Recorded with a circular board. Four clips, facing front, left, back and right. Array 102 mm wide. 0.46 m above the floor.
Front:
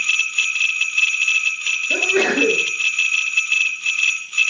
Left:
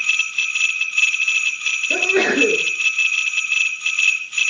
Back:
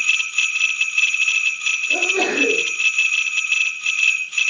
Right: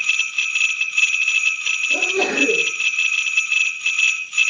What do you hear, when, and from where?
1.9 s a sneeze: 55° left, 8.5 m